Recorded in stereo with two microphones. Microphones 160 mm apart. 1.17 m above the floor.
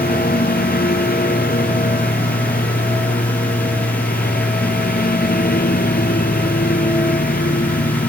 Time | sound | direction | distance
0.0 | a lawn mower | 70° left (ahead or behind) | ?